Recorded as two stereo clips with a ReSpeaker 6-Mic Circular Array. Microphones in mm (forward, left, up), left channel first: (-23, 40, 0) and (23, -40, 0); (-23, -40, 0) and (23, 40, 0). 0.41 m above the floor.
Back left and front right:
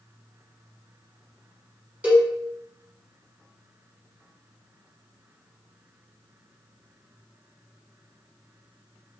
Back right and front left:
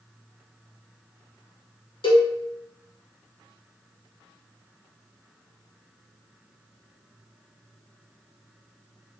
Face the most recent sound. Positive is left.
turn(degrees=-135)